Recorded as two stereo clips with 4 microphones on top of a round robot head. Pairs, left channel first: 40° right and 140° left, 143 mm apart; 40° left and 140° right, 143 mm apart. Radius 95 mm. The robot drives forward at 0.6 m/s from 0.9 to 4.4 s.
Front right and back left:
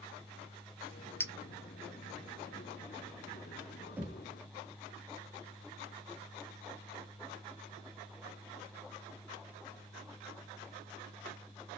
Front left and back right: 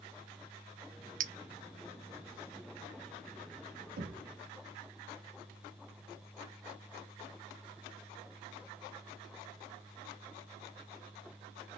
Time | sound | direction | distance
1.2 | a clink | 110° right | 0.6 m
4.0 | knocking | 140° right | 1.5 m